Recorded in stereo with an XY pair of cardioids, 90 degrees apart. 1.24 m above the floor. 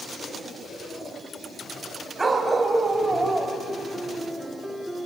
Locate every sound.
2.2 s a dog barking: 30° right, 3 m; by 3.6 s 15° right, 2.5 m
3.7 s a piano: 5° right, 1.5 m